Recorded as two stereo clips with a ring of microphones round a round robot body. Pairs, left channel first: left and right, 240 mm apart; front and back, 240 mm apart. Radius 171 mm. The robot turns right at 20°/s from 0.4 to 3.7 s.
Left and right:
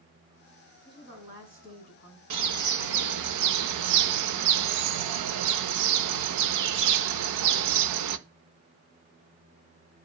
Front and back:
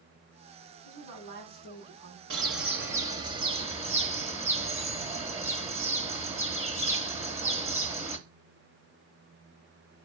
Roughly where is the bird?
Behind right.